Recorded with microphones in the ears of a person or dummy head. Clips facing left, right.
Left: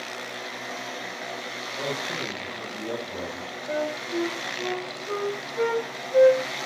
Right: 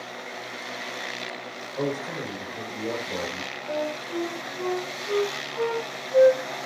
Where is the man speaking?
60° right (ahead or behind), 7 m.